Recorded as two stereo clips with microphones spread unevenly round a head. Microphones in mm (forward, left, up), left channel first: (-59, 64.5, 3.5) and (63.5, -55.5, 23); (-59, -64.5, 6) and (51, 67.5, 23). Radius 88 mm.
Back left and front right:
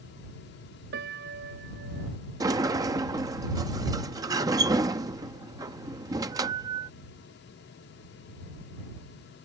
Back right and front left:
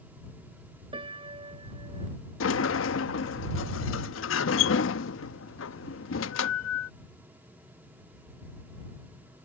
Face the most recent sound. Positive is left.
turn(degrees=-115)